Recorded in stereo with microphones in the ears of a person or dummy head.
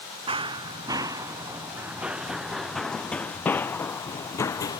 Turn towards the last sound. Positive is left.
turn(degrees=20)  # may be behind; listen again after turning